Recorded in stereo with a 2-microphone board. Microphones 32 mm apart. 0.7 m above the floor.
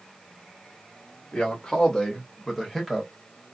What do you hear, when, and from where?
1.3 s a man speaking: 30° left (ahead or behind), 1.1 m; by 3.1 s centre (ahead or behind), 1.2 m